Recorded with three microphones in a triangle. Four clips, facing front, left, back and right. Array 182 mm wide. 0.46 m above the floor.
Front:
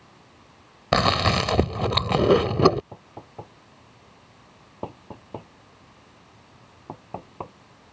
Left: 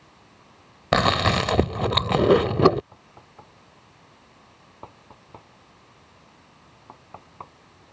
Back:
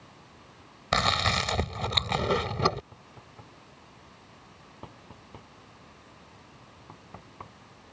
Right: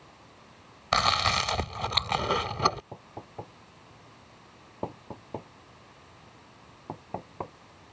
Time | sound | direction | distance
0.9 | chewing | 55° left | ?
2.9 | knocking | 45° right | ?